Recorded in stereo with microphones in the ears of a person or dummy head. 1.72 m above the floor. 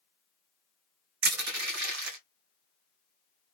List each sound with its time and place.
1.2 s crushing: 80° right, 1.4 m